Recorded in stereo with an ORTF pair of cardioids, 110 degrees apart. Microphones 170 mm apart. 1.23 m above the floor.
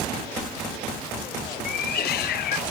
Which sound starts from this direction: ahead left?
A cat meowing, at 1.6 s.